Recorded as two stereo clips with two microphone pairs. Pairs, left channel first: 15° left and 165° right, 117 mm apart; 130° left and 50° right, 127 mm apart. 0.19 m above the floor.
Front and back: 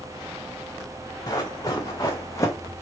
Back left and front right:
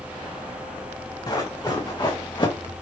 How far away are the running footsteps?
About 1.7 m.